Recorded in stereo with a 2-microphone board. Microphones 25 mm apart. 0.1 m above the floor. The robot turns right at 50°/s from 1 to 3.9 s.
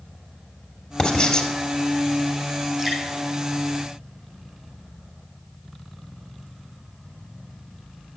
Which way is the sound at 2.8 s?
25° right (ahead or behind).